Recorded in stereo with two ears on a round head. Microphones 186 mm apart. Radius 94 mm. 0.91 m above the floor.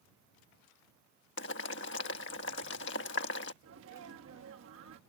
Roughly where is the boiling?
Left.